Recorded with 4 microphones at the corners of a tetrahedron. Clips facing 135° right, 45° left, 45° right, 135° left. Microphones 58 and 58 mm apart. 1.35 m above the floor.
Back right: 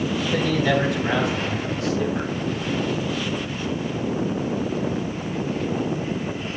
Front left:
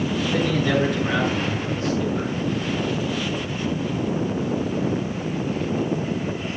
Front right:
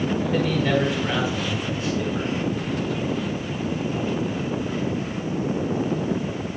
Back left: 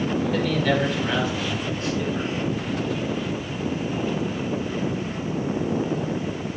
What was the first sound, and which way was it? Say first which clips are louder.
A man speaking: back right 1 dB, front right 1 dB; 125° right.